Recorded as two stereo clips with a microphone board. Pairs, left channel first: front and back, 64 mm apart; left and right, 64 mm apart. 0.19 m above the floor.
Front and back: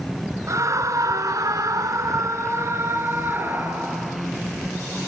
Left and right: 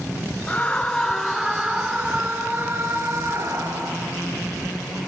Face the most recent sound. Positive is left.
turn(degrees=-120)